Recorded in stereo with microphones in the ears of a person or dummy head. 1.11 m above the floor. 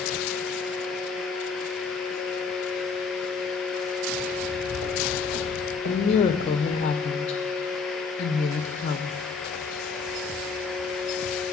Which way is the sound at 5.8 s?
25° left (ahead or behind).